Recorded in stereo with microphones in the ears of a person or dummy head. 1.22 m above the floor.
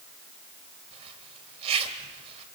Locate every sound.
0.9 s a zipper: 35° right (ahead or behind), 2.5 m